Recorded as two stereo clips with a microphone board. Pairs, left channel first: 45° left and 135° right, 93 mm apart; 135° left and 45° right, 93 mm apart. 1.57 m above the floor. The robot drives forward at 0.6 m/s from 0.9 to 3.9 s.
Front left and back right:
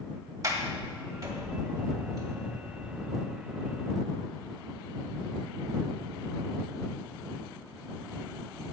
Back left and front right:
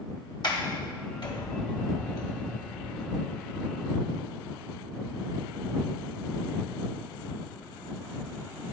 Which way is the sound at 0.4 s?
175° left.